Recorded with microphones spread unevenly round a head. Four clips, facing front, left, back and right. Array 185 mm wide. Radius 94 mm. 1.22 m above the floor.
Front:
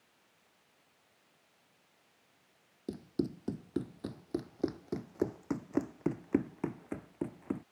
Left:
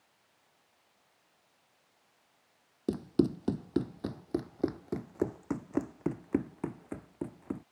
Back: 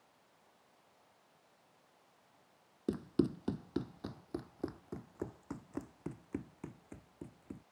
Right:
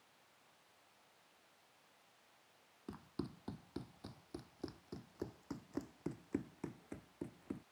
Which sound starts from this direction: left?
Running footsteps, at 2.9 s.